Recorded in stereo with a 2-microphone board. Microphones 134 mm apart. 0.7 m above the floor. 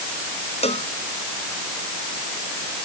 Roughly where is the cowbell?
Left.